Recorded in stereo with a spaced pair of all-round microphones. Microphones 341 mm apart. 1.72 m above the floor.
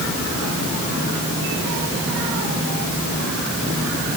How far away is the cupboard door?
No cupboard door in this recording.